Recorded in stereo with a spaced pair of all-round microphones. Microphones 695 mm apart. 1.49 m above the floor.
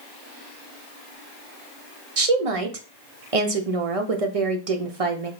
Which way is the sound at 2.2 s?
55° right (ahead or behind).